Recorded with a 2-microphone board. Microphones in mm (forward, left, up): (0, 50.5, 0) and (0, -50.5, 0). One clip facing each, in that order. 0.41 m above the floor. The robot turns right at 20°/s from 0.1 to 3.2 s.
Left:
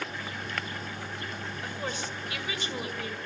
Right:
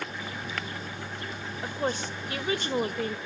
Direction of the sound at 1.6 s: 140° right.